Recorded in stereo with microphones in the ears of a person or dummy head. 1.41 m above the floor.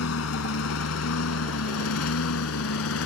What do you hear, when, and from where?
0.0 s a lawn mower: 70° left (ahead or behind); by 3.1 s 80° left